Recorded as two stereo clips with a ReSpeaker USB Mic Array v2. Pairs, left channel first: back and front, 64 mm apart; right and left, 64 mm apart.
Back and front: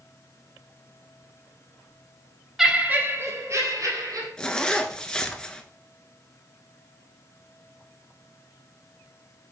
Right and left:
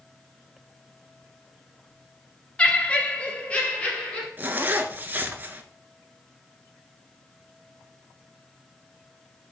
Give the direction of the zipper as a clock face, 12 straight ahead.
8 o'clock.